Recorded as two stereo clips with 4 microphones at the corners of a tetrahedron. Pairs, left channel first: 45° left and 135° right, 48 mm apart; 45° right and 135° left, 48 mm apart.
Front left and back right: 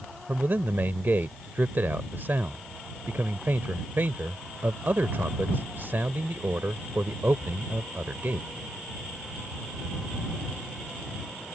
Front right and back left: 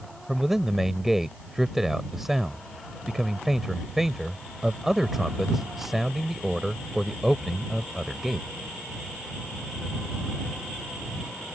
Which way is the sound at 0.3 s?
145° right.